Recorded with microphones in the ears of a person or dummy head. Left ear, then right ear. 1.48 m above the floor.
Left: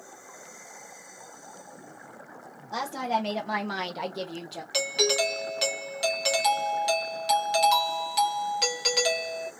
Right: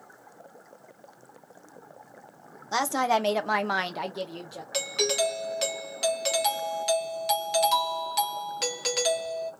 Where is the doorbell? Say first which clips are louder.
Left 2 dB; centre (ahead or behind), 0.6 m.